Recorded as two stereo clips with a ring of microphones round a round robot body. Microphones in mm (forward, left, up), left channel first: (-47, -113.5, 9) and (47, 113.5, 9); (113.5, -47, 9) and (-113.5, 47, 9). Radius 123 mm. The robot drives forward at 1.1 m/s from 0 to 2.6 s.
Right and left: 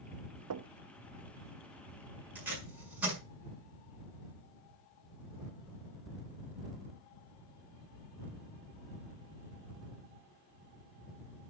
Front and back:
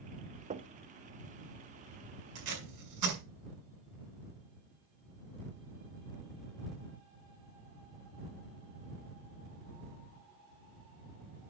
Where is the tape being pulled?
150° left, 6 m.